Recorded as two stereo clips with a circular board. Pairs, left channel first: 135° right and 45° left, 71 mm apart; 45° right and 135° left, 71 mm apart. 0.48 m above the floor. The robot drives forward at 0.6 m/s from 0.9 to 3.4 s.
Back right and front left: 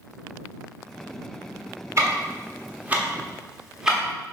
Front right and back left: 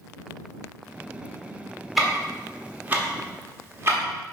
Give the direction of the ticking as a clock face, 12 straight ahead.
10 o'clock.